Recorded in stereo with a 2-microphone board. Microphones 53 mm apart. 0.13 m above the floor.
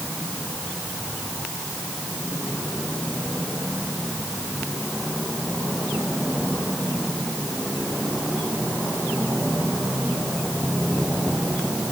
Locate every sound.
Only background noise.